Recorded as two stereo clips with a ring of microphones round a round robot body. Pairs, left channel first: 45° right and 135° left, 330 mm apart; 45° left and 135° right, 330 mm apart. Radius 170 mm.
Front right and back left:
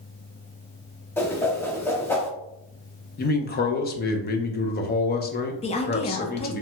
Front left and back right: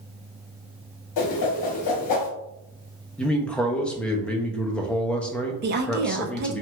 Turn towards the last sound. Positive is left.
turn(degrees=-105)